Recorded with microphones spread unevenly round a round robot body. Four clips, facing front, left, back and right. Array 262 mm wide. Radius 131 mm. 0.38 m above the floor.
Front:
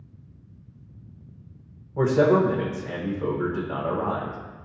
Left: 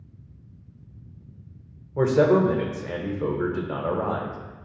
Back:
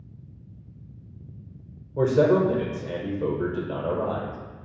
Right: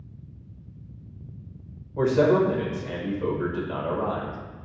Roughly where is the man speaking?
Behind left.